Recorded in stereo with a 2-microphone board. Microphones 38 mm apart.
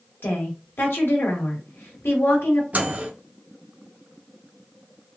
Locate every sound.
0.2 s a woman speaking: 70° left (ahead or behind), 1.3 m
2.7 s a microwave: 40° right (ahead or behind), 0.6 m